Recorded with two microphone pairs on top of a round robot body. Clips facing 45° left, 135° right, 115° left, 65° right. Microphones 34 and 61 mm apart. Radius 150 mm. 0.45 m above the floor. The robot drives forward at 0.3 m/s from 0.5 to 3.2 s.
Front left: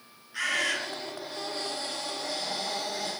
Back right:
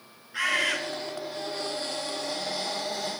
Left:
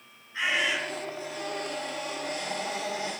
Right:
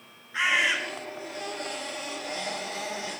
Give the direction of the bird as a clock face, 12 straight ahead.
2 o'clock.